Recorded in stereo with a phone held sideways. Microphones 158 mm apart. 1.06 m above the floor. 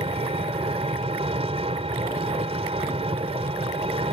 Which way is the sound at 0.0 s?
40° right (ahead or behind).